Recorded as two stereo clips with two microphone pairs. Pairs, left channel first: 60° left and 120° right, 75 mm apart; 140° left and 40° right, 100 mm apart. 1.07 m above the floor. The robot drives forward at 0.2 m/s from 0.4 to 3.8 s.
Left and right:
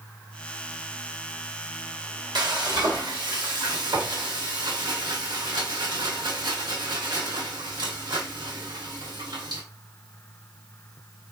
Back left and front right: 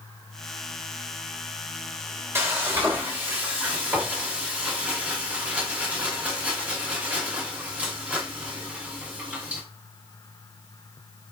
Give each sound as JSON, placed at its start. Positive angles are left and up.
{"t": 2.4, "sound": "frying", "azimuth_deg": -105, "distance_m": 1.2}